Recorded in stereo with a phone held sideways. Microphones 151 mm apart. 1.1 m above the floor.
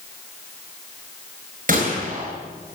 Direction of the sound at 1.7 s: 65° right (ahead or behind).